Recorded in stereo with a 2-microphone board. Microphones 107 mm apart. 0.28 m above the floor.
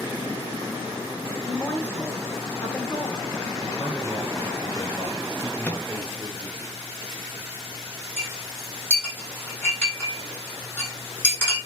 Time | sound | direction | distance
1.4 | a woman speaking | 20° left (ahead or behind) | 4 m
3.6 | a man speaking | 35° left (ahead or behind) | 7 m
5.6 | a microwave | 15° left (ahead or behind) | 3 m
8.2 | a clink | 20° left (ahead or behind) | 9.5 m